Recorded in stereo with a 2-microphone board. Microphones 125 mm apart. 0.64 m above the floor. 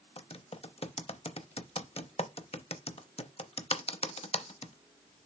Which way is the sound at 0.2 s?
55° left (ahead or behind).